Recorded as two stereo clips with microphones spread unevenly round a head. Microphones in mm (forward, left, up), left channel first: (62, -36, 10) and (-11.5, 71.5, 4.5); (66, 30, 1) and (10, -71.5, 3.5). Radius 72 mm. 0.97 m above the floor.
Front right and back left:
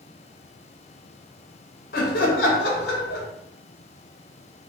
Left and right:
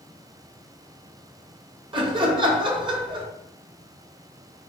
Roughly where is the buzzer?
I don't hear a buzzer.